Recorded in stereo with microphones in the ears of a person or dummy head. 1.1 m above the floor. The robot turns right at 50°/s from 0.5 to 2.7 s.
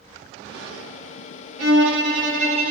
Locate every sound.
1.6 s a violin: 90° right, 2 m; by 2.7 s 35° right, 2 m